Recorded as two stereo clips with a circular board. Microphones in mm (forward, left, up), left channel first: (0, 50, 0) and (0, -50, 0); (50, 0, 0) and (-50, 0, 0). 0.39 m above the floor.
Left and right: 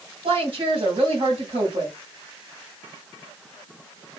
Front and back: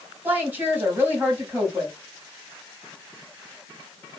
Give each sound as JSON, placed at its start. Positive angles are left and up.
{"t": 0.2, "sound": "a woman speaking", "azimuth_deg": -110, "distance_m": 2.0}